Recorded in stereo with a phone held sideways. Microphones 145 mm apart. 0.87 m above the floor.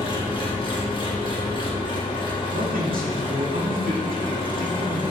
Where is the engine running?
35° left (ahead or behind), 1.3 m.